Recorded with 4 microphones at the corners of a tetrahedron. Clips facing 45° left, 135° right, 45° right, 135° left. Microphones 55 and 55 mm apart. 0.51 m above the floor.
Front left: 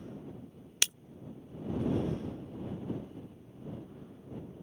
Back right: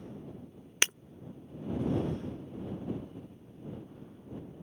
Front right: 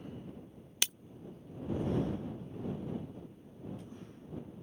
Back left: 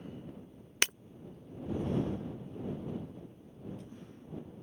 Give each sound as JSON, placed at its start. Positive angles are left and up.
{"t": 0.8, "sound": "breaking glass", "azimuth_deg": 170}